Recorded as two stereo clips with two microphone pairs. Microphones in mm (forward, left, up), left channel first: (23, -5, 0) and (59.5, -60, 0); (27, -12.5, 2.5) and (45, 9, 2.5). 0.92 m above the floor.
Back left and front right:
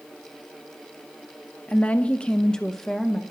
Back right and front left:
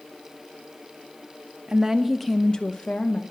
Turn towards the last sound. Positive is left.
turn(degrees=-145)